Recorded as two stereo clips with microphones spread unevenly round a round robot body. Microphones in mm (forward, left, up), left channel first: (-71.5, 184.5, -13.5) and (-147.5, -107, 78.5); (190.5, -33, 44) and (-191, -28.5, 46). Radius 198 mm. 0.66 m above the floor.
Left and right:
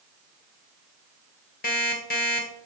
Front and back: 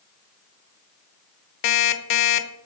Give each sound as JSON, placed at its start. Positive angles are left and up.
{"t": 1.6, "sound": "an alarm clock", "azimuth_deg": 5, "distance_m": 1.1}